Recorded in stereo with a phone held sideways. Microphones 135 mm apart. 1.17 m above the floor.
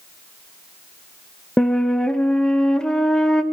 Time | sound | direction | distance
1.6 | a flute | 5° left (ahead or behind) | 1.1 m